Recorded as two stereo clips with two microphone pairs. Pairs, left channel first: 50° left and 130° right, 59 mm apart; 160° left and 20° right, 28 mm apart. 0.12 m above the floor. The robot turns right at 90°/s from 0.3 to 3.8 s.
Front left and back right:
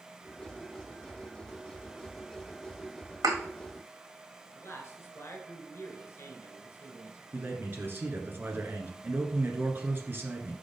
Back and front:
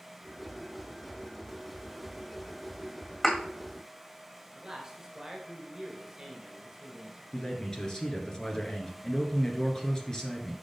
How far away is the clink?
No clink in this recording.